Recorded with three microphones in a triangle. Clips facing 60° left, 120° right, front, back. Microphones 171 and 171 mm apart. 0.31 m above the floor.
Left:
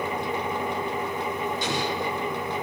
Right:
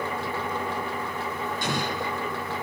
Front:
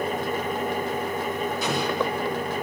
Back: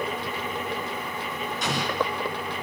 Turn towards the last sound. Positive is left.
turn(degrees=-85)